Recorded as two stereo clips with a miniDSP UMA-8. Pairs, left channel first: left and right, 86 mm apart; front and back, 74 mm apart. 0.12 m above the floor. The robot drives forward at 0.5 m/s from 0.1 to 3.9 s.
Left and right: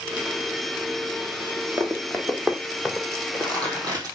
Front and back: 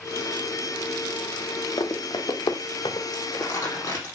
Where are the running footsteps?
25° right, 2.0 m; by 3.0 s 5° right, 1.2 m.